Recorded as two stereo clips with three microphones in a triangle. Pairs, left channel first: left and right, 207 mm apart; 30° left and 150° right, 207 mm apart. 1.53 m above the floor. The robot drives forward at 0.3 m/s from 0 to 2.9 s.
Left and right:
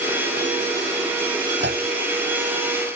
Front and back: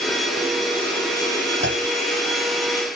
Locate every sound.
1.6 s a clunk: 125° right